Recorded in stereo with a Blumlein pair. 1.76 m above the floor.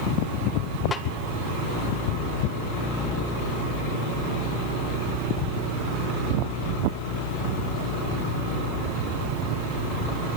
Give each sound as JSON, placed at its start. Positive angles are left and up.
{"t": 0.9, "sound": "a snare drum", "azimuth_deg": 15, "distance_m": 2.0}